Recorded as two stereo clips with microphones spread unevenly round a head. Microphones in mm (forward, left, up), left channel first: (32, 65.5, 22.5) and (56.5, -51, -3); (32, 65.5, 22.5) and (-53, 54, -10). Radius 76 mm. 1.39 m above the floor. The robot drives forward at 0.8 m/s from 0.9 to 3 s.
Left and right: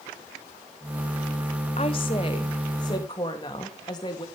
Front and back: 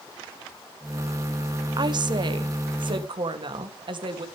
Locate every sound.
1.8 s a woman speaking: 160° left, 1.3 m; by 4.2 s 170° left, 2 m